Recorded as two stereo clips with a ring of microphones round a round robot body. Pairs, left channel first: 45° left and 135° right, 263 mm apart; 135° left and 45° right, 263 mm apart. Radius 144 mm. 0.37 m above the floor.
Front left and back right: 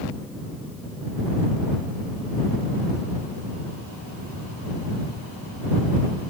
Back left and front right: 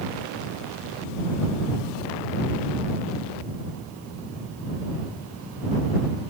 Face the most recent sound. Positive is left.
No sound to turn to.